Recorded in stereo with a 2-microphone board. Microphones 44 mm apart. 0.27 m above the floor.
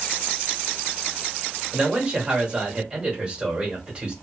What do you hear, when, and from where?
1.7 s a man speaking: 25° right (ahead or behind), 1.6 m